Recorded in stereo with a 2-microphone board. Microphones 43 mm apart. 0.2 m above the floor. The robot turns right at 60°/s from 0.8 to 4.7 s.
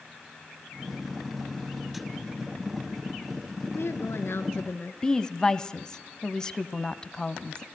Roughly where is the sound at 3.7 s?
Ahead left.